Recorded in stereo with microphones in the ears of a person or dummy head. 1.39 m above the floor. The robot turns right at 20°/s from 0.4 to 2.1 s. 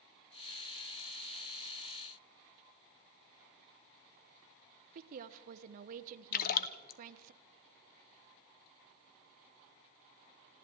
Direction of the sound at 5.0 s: 45° right (ahead or behind).